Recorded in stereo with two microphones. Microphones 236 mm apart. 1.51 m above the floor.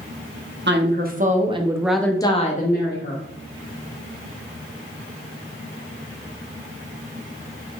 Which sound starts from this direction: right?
A woman speaking, at 0.7 s.